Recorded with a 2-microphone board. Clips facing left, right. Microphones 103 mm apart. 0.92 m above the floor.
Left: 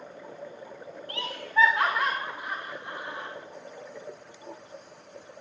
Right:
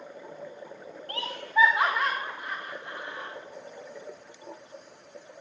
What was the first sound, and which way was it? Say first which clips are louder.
Laughter: right 1 dB; 40° right (ahead or behind).